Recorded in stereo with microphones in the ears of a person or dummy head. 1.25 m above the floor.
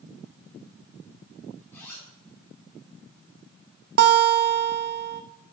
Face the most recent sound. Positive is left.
turn(degrees=-60)  # may be behind; listen again after turning